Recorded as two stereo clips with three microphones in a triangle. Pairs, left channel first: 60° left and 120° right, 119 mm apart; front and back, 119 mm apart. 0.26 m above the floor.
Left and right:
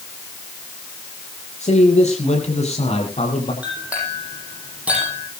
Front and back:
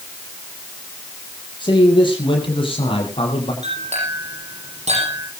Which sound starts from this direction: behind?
A clink, at 3.6 s.